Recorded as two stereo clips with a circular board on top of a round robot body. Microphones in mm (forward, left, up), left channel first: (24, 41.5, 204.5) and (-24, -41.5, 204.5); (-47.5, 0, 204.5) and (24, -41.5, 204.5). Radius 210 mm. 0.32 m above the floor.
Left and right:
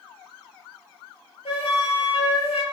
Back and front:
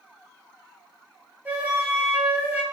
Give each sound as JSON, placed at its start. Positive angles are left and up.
{"t": 1.4, "sound": "a flute", "azimuth_deg": 40, "distance_m": 5.0}